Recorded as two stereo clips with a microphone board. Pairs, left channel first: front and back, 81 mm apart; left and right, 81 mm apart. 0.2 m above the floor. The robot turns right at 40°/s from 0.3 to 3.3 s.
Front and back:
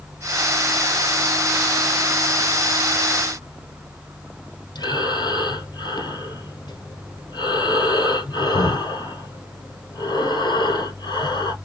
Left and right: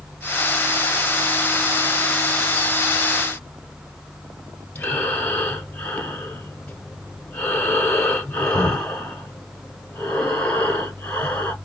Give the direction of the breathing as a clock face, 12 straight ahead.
11 o'clock.